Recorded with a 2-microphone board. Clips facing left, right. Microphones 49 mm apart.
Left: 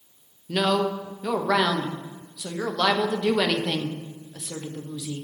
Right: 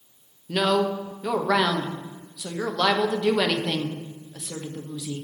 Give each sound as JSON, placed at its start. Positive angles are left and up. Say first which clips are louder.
{"t": 0.5, "sound": "a woman speaking", "louder": "right 1 dB", "side_deg": 0, "distance_m": 1.0}